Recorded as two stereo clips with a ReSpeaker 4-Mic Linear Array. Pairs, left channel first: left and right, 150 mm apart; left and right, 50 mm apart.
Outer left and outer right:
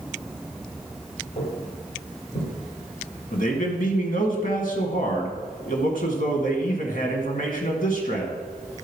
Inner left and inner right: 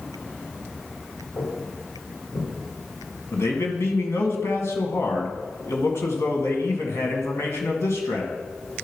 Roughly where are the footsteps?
Left.